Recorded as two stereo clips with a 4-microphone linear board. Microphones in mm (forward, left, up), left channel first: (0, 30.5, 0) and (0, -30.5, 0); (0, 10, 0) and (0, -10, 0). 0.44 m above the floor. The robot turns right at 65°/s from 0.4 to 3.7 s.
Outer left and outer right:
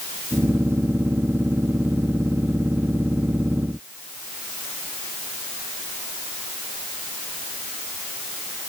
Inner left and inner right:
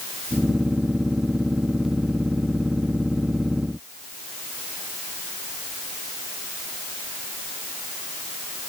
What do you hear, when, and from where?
Only background noise.